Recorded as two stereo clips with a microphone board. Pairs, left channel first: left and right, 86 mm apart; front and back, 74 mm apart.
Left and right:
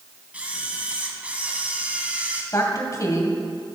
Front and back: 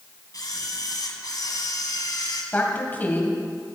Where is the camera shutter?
15° right, 1.8 m.